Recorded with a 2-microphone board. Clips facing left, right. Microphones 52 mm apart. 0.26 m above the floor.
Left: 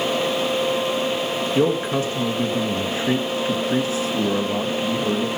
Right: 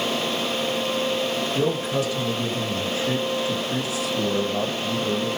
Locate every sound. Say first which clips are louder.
1.6 s a man speaking: left 5 dB; 30° left (ahead or behind), 3.5 m